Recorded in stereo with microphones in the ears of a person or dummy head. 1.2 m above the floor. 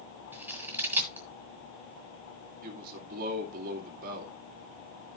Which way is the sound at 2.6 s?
50° right (ahead or behind).